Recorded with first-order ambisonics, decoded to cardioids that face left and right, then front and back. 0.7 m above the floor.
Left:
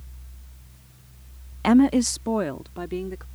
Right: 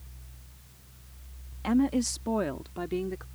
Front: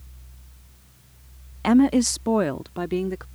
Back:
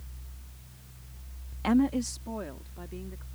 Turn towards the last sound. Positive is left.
turn(degrees=0)